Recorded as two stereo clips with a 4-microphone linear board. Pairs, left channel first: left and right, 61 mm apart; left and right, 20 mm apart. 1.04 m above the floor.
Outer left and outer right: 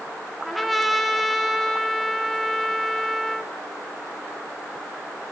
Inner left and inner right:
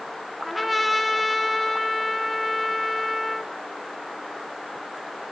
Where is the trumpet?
Centre (ahead or behind), 0.9 m.